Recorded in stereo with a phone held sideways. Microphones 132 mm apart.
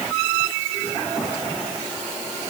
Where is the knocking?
No knocking in this recording.